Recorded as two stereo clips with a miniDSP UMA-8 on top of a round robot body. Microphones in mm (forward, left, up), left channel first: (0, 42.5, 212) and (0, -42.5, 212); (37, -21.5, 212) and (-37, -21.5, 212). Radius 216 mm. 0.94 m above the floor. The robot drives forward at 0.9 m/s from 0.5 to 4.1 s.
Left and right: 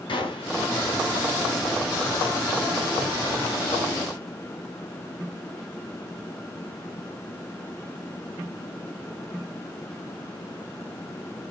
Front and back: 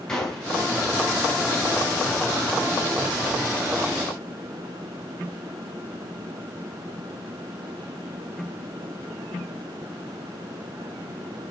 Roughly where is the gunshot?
Left.